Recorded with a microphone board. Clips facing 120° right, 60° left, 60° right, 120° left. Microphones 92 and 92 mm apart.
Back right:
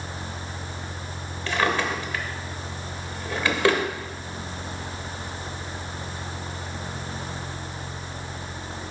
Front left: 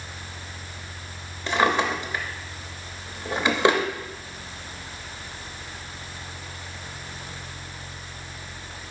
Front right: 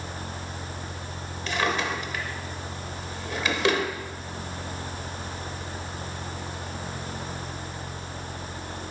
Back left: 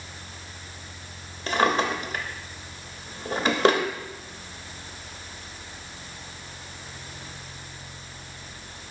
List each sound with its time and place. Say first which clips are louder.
1.5 s a drawer: front left 2 dB, back left 4 dB; 115° left, 0.8 m